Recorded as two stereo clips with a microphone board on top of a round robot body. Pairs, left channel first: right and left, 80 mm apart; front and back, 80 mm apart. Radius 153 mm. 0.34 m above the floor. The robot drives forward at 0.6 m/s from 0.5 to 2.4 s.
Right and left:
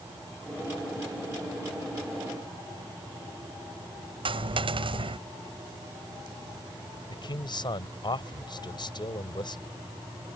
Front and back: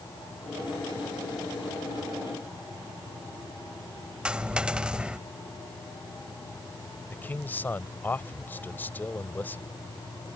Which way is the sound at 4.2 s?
100° left.